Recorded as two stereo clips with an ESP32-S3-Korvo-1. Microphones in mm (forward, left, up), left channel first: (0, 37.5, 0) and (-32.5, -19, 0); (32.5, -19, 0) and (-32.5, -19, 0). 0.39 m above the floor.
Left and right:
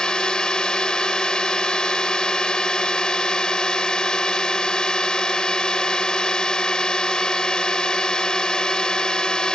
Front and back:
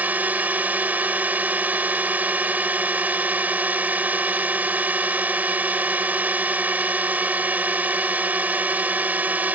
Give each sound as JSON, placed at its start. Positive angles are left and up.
{"t": 0.0, "sound": "a drone", "azimuth_deg": 130}